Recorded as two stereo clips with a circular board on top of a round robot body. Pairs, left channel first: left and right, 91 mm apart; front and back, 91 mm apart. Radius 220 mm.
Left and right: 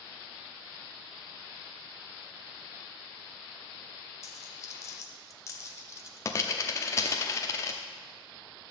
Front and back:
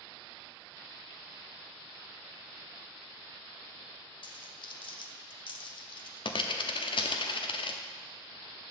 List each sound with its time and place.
4.2 s a dropped coin: 30° left, 0.7 m